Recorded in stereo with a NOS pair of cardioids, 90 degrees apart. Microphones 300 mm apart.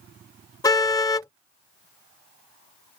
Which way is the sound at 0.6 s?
10° left.